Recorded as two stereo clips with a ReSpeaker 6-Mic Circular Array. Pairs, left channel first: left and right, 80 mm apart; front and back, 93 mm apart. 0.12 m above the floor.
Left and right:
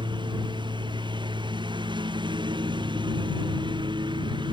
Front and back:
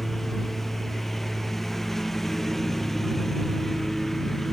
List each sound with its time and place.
0.0 s a lawn mower: 85° right